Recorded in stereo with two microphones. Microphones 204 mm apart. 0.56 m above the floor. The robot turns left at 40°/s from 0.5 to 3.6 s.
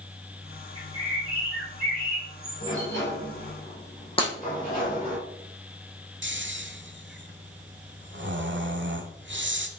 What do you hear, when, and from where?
0.8 s a bird: 150° left, 4.5 m; by 3.0 s 60° left, 4.5 m
2.6 s a sliding door: 80° left, 4.5 m; by 5.2 s 40° left, 4.5 m
4.2 s breaking glass: 25° left (ahead or behind), 4 m
6.2 s snoring: 65° right (ahead or behind), 1.0 m